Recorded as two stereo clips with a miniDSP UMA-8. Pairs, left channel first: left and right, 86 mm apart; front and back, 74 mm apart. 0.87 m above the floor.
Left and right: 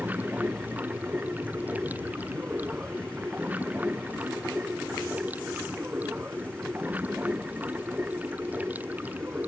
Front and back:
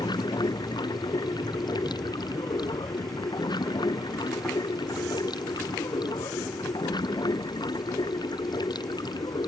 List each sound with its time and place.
0.0 s running water: 20° right